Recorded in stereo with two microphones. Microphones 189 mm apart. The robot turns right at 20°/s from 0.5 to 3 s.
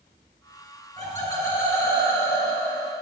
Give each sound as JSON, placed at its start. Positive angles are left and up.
{"t": 1.0, "sound": "laughter", "side_deg": 20, "distance_m": 1.5}